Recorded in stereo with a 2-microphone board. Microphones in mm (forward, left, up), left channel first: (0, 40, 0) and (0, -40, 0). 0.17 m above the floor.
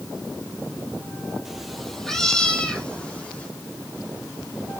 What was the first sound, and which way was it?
A cat meowing, 5° right (ahead or behind).